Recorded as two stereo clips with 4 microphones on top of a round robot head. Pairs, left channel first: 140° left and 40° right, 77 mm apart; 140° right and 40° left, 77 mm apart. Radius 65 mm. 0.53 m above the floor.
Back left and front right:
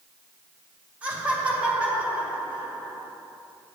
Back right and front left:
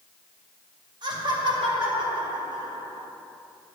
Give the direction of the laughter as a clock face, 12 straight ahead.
11 o'clock.